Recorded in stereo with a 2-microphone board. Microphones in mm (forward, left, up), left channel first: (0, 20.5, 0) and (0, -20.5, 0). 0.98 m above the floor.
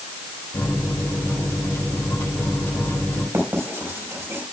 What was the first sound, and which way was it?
A microwave, 80° left.